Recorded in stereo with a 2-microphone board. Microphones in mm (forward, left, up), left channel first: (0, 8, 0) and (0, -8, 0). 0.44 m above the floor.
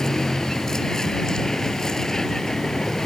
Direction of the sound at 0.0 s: 35° left (ahead or behind).